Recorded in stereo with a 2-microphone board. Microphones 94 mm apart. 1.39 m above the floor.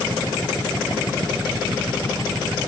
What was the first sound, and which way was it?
Only background noise.